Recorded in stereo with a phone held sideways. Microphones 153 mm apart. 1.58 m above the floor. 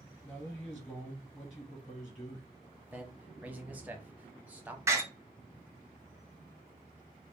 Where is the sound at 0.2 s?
20° left (ahead or behind), 1.1 m.